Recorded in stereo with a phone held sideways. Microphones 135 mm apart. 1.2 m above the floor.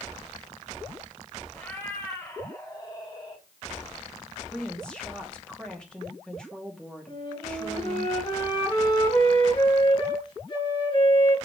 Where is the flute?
35° left (ahead or behind), 3 m.